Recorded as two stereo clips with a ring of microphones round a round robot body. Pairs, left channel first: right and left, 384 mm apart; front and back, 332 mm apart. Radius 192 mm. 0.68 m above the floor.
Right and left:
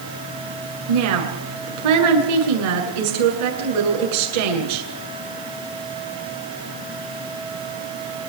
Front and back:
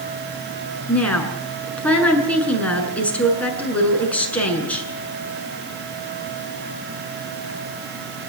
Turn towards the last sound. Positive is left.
turn(degrees=85)